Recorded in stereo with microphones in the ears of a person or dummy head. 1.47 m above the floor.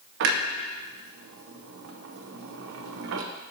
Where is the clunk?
75° right (ahead or behind), 0.7 m.